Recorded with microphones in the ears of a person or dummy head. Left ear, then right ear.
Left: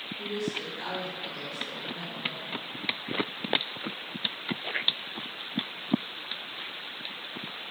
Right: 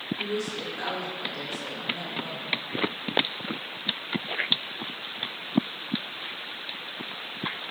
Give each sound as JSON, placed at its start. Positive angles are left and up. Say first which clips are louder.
{"t": 0.2, "sound": "a woman speaking", "louder": "right 2 dB", "side_deg": -30, "distance_m": 5.0}